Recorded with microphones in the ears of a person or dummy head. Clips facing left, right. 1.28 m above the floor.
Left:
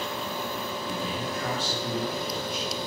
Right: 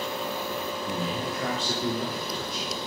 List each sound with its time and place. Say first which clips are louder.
0.8 s a man speaking: right 1 dB; 75° right (ahead or behind), 3.5 m